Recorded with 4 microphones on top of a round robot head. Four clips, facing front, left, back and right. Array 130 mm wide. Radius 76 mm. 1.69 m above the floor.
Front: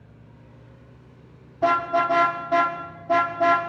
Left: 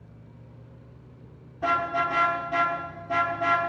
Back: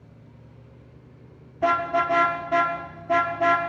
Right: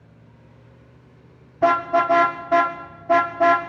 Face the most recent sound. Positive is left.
turn(degrees=-80)